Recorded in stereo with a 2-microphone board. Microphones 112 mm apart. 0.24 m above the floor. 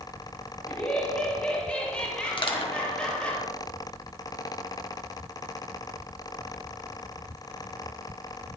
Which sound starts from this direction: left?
Crushing, at 2.4 s.